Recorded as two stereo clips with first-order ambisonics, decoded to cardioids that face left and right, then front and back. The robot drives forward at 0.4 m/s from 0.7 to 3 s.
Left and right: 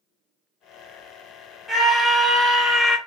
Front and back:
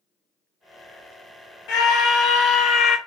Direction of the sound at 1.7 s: 15° left.